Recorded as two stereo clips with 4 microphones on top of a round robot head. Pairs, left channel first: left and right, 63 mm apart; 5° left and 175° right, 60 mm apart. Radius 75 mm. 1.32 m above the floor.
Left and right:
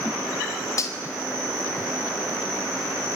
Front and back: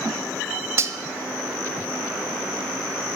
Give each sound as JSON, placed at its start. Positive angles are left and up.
{"t": 0.8, "sound": "cutlery clinking", "azimuth_deg": 145, "distance_m": 1.2}